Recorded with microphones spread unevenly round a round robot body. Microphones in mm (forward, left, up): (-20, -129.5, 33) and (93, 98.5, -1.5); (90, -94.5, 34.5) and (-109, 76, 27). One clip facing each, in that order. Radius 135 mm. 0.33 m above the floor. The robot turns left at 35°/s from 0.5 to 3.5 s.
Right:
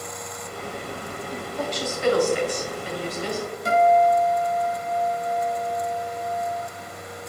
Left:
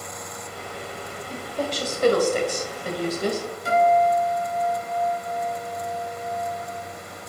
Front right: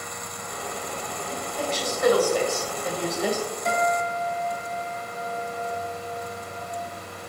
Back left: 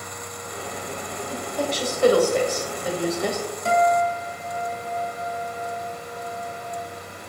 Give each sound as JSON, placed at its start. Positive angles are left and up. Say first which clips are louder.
{"t": 1.3, "sound": "a woman speaking", "louder": "left 1 dB, back left 3 dB", "azimuth_deg": 115, "distance_m": 1.7}
{"t": 3.6, "sound": "a guitar", "louder": "right 1 dB, back left 7 dB", "azimuth_deg": -160, "distance_m": 3.0}